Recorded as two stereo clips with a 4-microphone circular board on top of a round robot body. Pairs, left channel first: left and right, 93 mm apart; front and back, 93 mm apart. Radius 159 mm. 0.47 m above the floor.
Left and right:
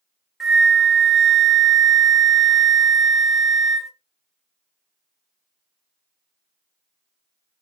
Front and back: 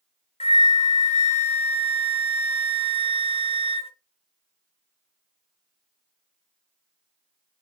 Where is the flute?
Straight ahead, 0.6 m.